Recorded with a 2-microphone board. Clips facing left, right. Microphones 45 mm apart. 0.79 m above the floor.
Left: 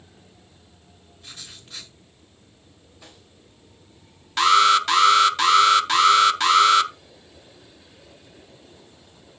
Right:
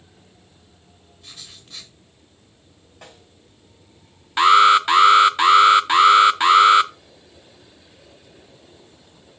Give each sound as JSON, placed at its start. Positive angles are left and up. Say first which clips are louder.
{"t": 1.2, "sound": "writing", "louder": "left 1 dB", "side_deg": 5, "distance_m": 4.0}
{"t": 3.0, "sound": "a snare drum", "louder": "right 5 dB", "side_deg": -65, "distance_m": 5.0}
{"t": 4.4, "sound": "an alarm", "louder": "right 4 dB", "side_deg": -20, "distance_m": 0.7}